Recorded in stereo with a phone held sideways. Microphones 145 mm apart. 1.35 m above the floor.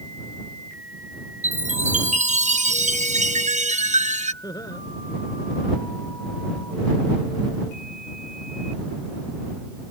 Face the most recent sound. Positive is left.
turn(degrees=25)  # may be behind; listen again after turning